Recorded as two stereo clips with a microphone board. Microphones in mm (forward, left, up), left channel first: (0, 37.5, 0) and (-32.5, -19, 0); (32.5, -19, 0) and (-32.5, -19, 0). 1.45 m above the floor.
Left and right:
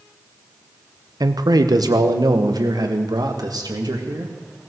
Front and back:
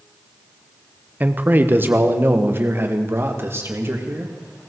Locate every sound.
1.2 s a man speaking: 115° right, 1.0 m; by 4.3 s 130° right, 2.5 m